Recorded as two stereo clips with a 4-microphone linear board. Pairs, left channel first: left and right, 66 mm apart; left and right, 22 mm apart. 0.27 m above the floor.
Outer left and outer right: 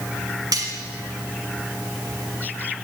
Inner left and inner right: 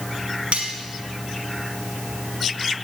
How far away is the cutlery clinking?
About 1.5 m.